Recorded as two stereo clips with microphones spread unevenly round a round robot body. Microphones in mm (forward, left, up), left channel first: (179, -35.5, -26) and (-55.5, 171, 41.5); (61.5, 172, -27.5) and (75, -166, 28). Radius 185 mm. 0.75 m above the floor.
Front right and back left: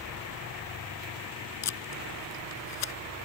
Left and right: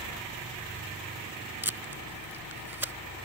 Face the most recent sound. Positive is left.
turn(degrees=-5)